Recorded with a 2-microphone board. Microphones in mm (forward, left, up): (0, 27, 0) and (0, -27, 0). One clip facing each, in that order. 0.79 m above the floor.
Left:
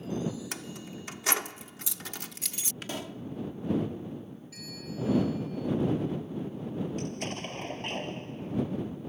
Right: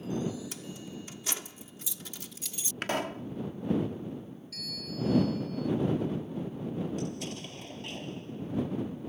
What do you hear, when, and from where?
0.5 s keys jangling: 75° left (ahead or behind)
2.8 s a pop: 60° right (ahead or behind)
4.5 s a bell: 15° left (ahead or behind)
7.0 s an explosion: 50° left (ahead or behind)